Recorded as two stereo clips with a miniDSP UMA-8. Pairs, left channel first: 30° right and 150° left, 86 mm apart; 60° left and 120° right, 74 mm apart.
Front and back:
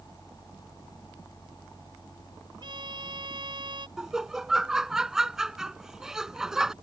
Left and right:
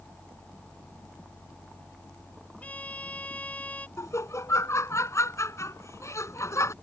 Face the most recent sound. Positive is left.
turn(degrees=70)